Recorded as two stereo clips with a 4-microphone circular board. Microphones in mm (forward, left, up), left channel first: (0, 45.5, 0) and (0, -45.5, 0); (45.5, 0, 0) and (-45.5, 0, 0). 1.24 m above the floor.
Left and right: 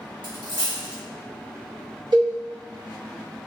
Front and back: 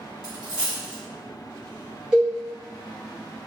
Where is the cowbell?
100° right, 1.1 m.